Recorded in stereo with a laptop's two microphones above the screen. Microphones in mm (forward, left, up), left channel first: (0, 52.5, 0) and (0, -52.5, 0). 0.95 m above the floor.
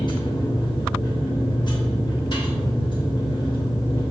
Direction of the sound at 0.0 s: 50° left (ahead or behind).